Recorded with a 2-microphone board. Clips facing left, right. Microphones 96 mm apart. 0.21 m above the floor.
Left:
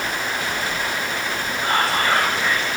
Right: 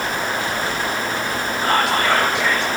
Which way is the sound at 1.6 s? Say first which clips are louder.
Right 2 dB; 85° right.